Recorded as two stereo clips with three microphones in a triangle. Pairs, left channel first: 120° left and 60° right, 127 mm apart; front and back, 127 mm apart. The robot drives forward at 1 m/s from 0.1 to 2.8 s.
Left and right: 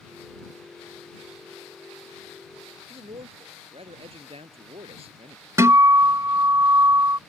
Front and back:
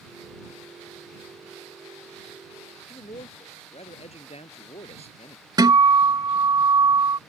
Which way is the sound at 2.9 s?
25° right.